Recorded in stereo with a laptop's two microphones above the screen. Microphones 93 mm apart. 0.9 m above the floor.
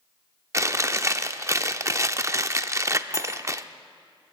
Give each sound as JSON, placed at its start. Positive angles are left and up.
{"t": 0.5, "sound": "chewing", "side_deg": -30, "distance_m": 0.6}
{"t": 3.1, "sound": "cutlery clinking", "side_deg": 30, "distance_m": 1.3}